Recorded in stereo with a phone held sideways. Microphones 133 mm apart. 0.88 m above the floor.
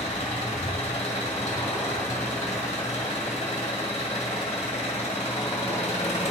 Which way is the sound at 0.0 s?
60° left (ahead or behind).